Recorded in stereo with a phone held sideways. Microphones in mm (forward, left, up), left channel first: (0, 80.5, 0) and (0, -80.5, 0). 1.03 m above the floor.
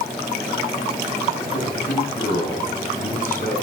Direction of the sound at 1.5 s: 55° left (ahead or behind).